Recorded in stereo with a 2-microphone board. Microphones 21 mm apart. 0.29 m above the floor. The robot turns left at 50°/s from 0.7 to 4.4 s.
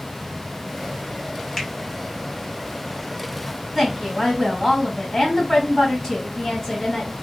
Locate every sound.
1.6 s a finger snap: 15° left (ahead or behind), 0.9 m; by 1.7 s 10° left (ahead or behind), 0.9 m
3.8 s a woman speaking: 170° left, 1.8 m; by 7.1 s 140° left, 1.8 m